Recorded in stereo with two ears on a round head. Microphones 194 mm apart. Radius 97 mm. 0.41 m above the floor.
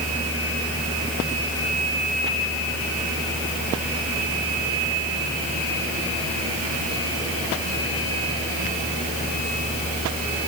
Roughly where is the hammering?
I don't hear hammering.